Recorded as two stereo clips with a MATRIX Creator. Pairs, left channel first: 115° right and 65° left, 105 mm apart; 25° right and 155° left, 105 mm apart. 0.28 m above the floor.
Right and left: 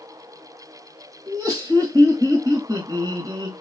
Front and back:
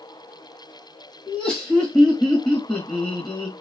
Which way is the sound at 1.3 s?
55° left.